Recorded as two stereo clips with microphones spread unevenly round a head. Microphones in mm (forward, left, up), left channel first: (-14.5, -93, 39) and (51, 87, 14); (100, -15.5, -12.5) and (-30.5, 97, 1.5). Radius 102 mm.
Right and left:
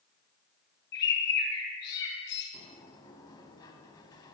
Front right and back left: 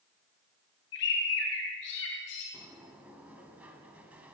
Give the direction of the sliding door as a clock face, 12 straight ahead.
5 o'clock.